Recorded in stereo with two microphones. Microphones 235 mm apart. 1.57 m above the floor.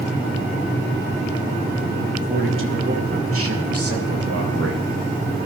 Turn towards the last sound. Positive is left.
turn(degrees=-90)